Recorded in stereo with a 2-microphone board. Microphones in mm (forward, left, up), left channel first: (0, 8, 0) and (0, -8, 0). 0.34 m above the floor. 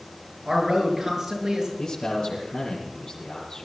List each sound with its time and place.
0.5 s a man speaking: 20° right (ahead or behind), 6.5 m; by 1.7 s 30° right (ahead or behind), 6.5 m
1.8 s a man speaking: 65° left (ahead or behind), 7 m